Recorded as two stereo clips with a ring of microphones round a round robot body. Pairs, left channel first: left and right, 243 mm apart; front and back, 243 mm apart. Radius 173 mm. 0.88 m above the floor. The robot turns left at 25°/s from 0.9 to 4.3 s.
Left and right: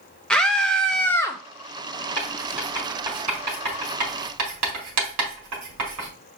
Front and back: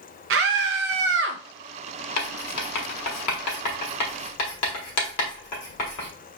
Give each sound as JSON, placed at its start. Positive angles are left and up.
{"t": 0.3, "sound": "a scream", "azimuth_deg": 175, "distance_m": 0.6}
{"t": 2.2, "sound": "writing", "azimuth_deg": 10, "distance_m": 1.3}